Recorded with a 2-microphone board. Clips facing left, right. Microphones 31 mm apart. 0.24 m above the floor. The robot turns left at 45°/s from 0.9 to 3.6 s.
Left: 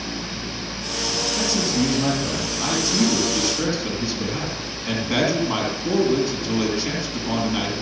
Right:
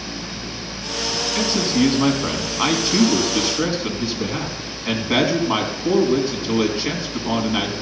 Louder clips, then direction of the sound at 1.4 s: Right 4 dB; 45° right.